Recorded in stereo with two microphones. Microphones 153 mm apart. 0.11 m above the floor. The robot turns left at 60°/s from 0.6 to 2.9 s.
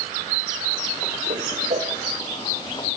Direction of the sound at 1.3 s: 60° right (ahead or behind).